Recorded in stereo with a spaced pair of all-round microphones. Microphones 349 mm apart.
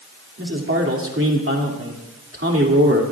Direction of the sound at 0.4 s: 35° right (ahead or behind).